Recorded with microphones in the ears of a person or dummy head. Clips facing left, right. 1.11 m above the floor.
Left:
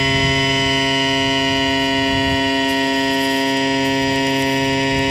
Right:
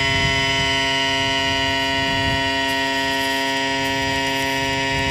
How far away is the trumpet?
I don't hear a trumpet.